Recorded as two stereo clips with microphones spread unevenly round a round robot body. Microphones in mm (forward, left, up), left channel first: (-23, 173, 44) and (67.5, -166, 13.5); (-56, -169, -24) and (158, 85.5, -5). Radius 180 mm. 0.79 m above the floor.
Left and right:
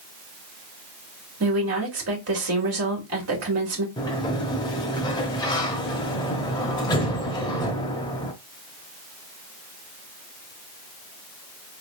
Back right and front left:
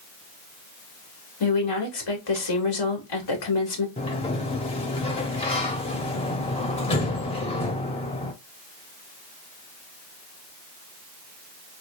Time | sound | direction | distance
1.4 | a woman speaking | 125° right | 2 m
4.0 | a sliding door | 165° left | 0.5 m